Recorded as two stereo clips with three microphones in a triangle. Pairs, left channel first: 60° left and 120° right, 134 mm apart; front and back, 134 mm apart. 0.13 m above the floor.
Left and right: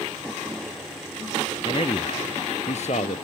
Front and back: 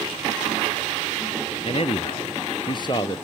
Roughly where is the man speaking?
Ahead left.